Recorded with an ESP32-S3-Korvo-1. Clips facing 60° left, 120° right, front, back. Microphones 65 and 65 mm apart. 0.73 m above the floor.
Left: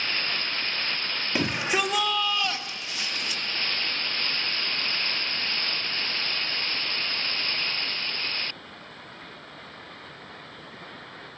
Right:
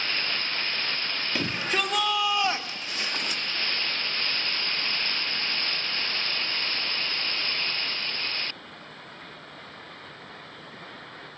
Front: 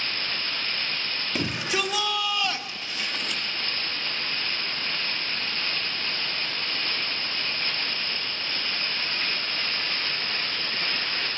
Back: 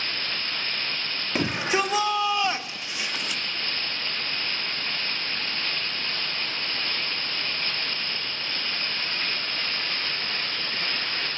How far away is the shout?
About 1.9 m.